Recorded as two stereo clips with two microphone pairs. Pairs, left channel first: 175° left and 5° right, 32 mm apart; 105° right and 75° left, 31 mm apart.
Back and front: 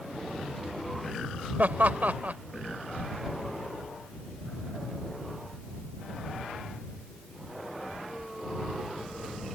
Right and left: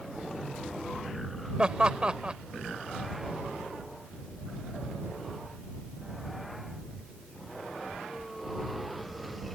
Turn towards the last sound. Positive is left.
turn(degrees=15)